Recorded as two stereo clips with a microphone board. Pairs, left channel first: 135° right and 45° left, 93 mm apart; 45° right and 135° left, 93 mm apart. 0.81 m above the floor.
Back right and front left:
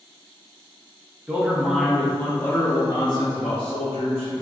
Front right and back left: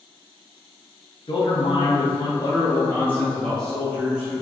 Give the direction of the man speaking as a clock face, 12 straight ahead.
1 o'clock.